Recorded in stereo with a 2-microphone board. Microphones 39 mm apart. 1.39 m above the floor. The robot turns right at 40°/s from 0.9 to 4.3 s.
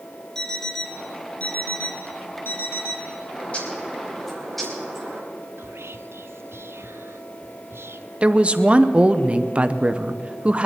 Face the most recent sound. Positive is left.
turn(degrees=-30)  # may be behind; listen again after turning